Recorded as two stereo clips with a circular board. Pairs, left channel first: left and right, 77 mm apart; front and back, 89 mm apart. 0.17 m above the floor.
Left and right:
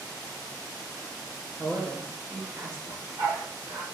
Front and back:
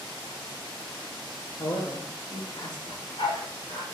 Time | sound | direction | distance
1.6 | a man speaking | 25° right | 4 m
2.9 | a dog barking | 35° right | 5.5 m